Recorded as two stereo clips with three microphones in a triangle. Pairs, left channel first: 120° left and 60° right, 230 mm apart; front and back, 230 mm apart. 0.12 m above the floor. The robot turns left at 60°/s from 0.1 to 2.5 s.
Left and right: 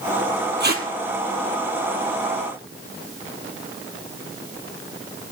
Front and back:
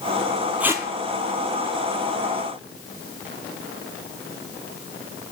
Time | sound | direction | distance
0.6 | tape being pulled | 95° right | 1.3 m